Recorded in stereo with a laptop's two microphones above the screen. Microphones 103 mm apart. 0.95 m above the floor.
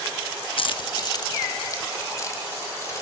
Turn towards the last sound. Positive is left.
turn(degrees=30)  # may be behind; listen again after turning